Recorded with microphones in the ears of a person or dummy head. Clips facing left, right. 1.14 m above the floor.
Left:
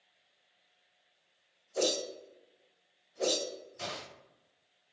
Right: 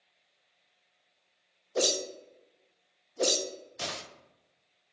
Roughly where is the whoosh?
Right.